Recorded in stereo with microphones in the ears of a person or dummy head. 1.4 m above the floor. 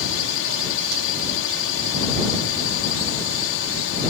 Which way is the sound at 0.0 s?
65° left (ahead or behind).